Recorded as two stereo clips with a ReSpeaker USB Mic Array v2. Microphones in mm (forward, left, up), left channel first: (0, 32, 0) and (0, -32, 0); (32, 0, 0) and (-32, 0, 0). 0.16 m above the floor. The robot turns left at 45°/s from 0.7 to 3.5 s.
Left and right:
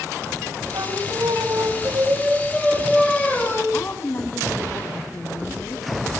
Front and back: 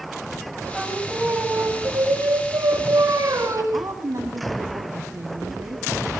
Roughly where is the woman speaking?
Behind left.